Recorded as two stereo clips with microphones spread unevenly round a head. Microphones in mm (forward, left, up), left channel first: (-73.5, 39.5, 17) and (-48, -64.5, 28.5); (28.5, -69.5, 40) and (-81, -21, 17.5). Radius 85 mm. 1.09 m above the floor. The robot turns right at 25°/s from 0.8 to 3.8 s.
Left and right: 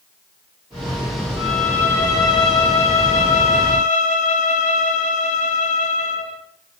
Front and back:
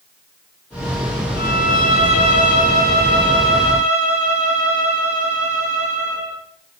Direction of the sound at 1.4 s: 10° left.